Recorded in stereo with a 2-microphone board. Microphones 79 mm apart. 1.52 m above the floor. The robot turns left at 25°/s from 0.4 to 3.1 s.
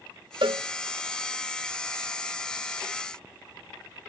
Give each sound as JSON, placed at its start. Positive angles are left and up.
{"t": 0.4, "sound": "a cowbell", "side_deg": -75, "distance_m": 0.5}